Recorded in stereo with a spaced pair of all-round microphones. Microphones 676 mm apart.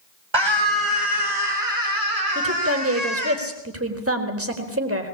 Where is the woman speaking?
20° right (ahead or behind), 4 m.